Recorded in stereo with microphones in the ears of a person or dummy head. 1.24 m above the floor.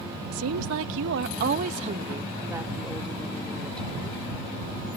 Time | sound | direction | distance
0.3 | a woman speaking | 90° right | ?